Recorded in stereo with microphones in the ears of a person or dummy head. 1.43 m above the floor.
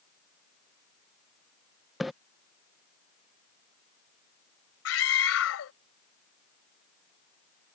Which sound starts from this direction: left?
A scream, at 4.8 s.